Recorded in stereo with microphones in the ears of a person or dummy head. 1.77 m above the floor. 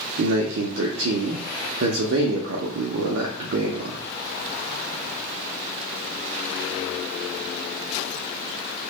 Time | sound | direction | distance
0.2 | a man speaking | 70° right (ahead or behind) | 0.5 m